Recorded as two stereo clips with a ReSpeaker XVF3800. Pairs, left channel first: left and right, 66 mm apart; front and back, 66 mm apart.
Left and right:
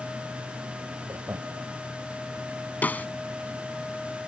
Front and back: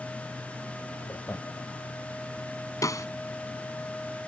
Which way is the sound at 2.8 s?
25° left.